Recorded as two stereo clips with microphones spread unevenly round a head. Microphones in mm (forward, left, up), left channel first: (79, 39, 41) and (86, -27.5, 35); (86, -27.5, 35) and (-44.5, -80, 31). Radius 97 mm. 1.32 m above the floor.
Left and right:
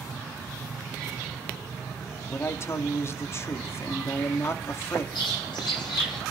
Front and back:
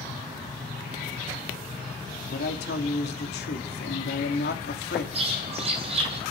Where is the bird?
140° left, 3.5 m.